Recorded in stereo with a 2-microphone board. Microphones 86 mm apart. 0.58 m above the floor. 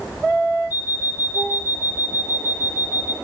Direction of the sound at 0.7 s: 25° right (ahead or behind).